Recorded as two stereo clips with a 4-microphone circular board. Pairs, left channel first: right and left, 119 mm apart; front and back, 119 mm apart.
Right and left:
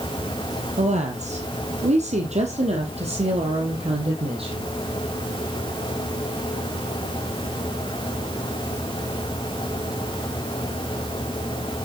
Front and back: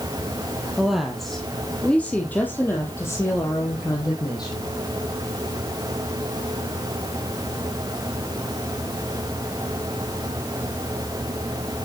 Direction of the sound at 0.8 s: 95° left.